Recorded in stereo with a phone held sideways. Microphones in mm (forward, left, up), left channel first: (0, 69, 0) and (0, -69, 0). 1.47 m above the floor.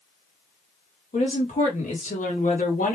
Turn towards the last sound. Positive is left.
turn(degrees=80)